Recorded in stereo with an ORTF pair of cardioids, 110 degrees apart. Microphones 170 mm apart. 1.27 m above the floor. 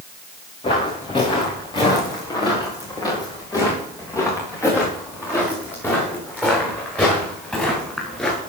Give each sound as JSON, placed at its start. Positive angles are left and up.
{"t": 0.6, "sound": "footsteps", "azimuth_deg": 30, "distance_m": 7.5}